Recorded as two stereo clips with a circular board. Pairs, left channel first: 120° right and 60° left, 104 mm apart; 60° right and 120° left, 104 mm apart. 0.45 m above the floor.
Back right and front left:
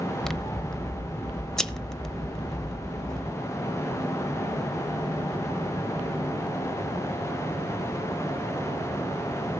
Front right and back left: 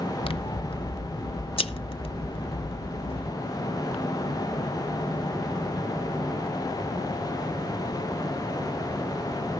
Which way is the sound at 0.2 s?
35° right.